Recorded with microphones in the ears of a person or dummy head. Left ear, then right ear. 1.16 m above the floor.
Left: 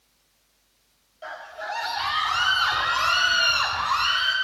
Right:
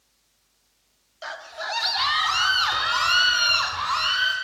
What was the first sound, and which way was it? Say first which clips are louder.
A scream: right 2 dB; 50° right (ahead or behind).